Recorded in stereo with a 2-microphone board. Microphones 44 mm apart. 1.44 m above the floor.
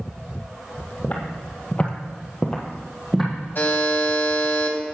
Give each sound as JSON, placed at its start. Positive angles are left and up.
{"t": 1.0, "sound": "footsteps", "side_deg": 30, "distance_m": 2.0}
{"t": 3.5, "sound": "a buzzer", "side_deg": 50, "distance_m": 2.0}